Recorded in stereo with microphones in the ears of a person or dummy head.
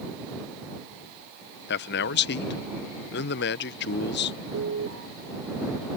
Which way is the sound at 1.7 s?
50° left (ahead or behind).